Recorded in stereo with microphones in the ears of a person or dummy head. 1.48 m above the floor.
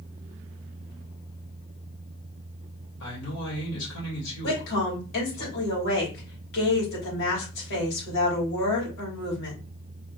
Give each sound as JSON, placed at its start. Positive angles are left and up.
{"t": 3.0, "sound": "a man speaking", "side_deg": 75, "distance_m": 2.5}
{"t": 4.4, "sound": "a woman speaking", "side_deg": 75, "distance_m": 3.0}